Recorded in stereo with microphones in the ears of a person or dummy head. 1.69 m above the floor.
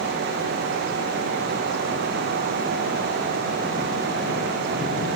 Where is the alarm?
I don't hear an alarm.